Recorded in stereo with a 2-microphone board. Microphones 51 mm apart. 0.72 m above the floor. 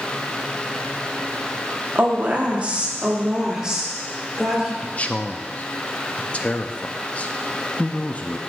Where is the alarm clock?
I don't hear an alarm clock.